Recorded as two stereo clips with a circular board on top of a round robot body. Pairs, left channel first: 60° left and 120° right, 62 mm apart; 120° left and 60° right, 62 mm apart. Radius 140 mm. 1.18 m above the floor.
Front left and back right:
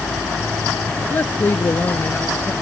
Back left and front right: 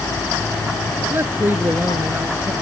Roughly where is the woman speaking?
Ahead.